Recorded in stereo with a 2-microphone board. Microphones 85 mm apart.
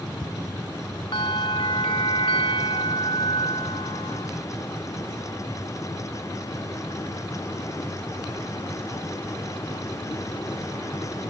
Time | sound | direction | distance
1.1 | a bell | 85° left | ?